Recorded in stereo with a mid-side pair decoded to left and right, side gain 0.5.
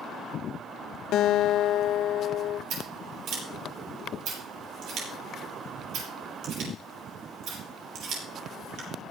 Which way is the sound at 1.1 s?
70° left.